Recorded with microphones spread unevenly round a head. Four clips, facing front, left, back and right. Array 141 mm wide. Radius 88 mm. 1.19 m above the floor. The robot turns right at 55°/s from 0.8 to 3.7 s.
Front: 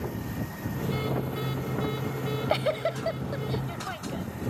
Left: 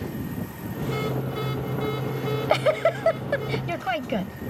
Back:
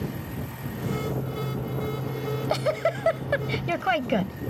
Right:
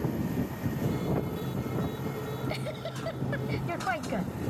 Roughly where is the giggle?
Left.